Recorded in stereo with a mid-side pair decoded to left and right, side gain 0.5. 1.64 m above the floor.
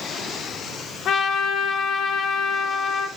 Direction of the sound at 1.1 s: 55° left.